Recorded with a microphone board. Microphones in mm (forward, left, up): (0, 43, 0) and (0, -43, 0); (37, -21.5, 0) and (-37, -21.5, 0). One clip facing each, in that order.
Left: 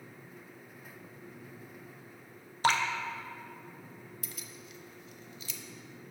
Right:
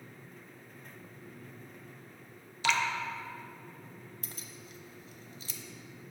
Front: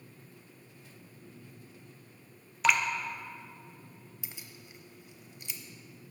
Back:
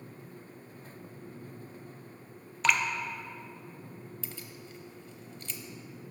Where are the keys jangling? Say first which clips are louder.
Left 1 dB, back 5 dB; 75° right, 0.6 m.